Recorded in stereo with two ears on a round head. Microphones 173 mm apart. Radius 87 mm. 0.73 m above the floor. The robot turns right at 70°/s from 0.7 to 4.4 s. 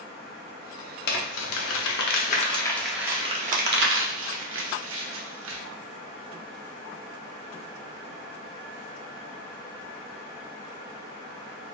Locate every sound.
1.1 s crumpling: 50° left (ahead or behind), 0.7 m; by 5.6 s 70° right (ahead or behind), 0.7 m